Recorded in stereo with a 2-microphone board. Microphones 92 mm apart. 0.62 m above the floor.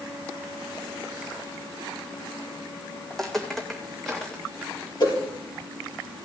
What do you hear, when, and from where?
3.1 s footsteps: 5° left (ahead or behind), 2 m; by 4.9 s centre (ahead or behind), 3.5 m
5.0 s a whoosh: 55° left (ahead or behind), 4.5 m